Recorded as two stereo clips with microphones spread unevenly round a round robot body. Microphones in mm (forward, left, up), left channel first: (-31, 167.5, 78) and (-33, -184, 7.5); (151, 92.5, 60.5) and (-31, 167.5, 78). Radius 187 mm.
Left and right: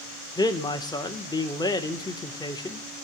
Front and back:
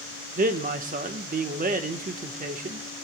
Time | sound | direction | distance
0.4 | a man speaking | straight behind | 1.0 m